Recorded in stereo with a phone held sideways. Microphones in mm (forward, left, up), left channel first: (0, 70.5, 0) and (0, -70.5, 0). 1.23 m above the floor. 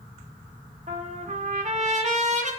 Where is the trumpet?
50° right (ahead or behind), 1.1 m.